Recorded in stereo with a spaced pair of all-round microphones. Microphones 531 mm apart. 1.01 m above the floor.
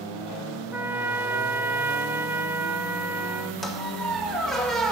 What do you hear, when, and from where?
0.7 s a trumpet: 5° right (ahead or behind), 1.1 m
3.6 s a squeak: centre (ahead or behind), 1.4 m